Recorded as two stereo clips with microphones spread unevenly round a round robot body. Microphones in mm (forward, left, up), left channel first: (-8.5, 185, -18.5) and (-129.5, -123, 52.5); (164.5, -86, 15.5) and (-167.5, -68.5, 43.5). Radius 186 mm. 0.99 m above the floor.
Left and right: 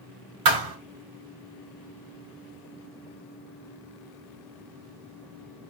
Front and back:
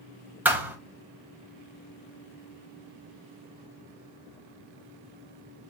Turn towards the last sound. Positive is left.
turn(degrees=-100)